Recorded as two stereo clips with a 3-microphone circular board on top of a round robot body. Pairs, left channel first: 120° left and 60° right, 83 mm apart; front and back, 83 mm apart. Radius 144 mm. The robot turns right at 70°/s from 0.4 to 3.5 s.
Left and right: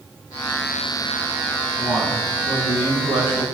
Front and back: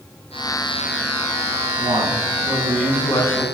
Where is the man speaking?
155° right, 9.5 m; by 3.5 s 40° right, 9.5 m.